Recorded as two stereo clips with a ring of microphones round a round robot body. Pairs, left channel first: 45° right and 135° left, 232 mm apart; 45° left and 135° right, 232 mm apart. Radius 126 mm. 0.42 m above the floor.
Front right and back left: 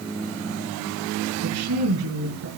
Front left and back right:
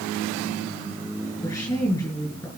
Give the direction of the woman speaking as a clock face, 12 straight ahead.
8 o'clock.